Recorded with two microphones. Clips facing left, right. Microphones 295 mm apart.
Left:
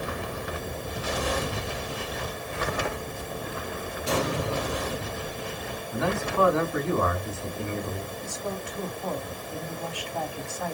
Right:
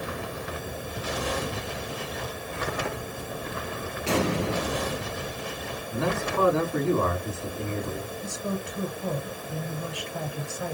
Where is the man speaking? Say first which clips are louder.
Even; 35° right (ahead or behind), 3 m.